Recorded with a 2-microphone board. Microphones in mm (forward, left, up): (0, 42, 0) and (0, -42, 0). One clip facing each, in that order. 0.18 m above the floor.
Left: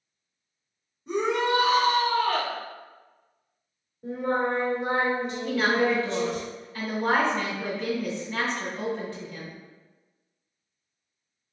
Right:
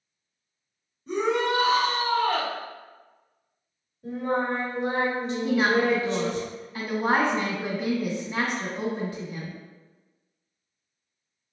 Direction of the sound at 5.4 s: 15° right (ahead or behind).